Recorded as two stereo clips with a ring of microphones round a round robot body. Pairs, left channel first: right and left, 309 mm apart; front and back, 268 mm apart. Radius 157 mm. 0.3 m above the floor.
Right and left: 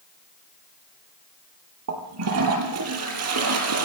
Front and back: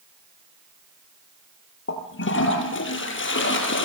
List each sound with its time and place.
1.9 s a toilet flushing: 45° left, 5.5 m